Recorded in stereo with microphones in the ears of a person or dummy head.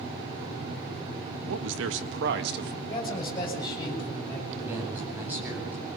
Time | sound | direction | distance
1.5 | a man speaking | 85° right | 2 m
2.9 | a man speaking | 30° left (ahead or behind) | 8 m
4.6 | a man speaking | 10° right (ahead or behind) | 9.5 m